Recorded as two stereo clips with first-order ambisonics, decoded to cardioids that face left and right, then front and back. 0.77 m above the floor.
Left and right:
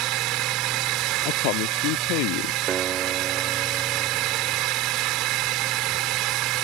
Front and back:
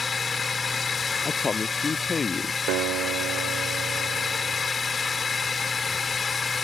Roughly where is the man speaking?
Left.